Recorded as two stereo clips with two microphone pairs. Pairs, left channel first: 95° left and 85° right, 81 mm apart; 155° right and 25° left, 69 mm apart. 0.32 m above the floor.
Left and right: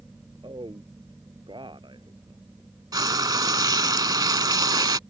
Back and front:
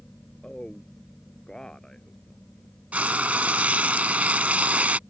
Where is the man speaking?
75° right.